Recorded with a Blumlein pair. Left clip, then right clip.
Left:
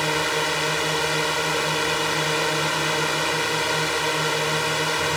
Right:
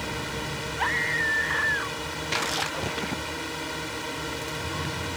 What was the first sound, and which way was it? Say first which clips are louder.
A drone: left 10 dB; 60° left.